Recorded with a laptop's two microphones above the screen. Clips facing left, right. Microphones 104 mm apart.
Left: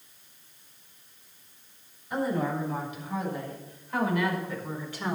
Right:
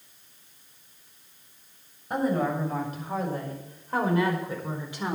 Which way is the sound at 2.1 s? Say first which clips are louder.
Right 3 dB; 50° right (ahead or behind).